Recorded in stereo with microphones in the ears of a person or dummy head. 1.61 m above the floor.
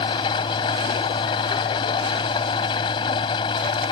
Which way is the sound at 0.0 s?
30° left (ahead or behind).